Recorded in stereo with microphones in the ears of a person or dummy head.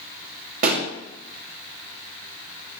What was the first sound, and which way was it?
A pop, 50° right (ahead or behind).